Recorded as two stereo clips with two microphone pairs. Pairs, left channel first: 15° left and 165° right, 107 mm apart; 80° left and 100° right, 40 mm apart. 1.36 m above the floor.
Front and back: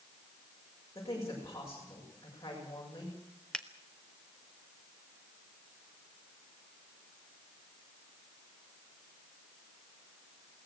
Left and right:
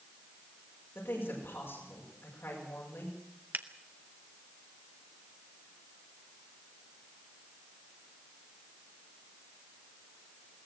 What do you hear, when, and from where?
0.9 s a woman speaking: 70° left, 7 m
3.5 s a finger snap: 70° right, 1.2 m